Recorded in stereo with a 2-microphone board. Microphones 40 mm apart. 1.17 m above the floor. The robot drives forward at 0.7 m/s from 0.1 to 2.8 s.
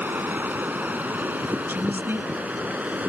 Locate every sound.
0.0 s running water: 55° right (ahead or behind); by 3.1 s 45° right (ahead or behind)
1.7 s a woman speaking: 65° right (ahead or behind); by 2.3 s 60° right (ahead or behind)